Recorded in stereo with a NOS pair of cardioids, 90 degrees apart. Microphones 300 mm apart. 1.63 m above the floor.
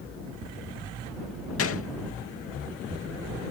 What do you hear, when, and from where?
1.6 s a gunshot: 50° left